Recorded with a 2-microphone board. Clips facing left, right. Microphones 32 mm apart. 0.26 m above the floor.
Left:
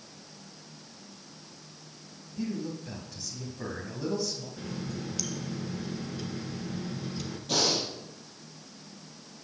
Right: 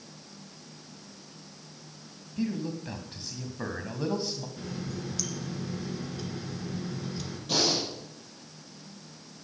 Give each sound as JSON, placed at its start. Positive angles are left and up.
{"t": 2.4, "sound": "a man speaking", "side_deg": -35, "distance_m": 2.0}
{"t": 4.6, "sound": "a running tap", "side_deg": 0, "distance_m": 2.0}
{"t": 7.5, "sound": "breathing", "side_deg": -5, "distance_m": 5.0}